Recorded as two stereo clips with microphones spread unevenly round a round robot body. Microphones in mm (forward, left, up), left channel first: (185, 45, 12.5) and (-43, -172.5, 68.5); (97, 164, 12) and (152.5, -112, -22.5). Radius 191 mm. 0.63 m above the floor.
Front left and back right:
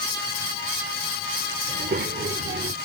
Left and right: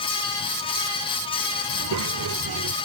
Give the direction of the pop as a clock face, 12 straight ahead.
No pop in this recording.